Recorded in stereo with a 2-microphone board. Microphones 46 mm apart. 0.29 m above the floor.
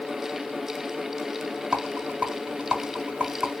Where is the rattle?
20° right (ahead or behind), 1.5 m.